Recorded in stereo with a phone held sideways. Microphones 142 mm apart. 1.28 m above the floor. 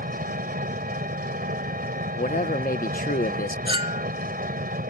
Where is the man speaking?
70° left (ahead or behind).